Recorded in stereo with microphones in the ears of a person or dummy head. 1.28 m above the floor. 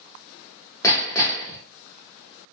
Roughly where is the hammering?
Centre.